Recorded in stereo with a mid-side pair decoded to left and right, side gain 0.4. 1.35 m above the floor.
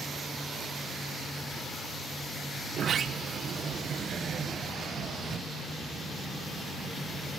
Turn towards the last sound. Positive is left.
turn(degrees=-60)